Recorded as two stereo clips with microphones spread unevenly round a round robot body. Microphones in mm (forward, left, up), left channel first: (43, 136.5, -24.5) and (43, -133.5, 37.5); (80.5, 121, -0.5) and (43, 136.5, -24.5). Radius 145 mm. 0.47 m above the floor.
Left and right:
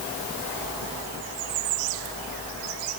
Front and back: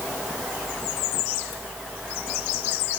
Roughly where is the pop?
No pop in this recording.